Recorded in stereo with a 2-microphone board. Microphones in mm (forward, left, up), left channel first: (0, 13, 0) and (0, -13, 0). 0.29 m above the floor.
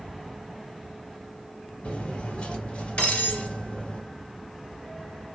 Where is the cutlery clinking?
60° left (ahead or behind), 2 m.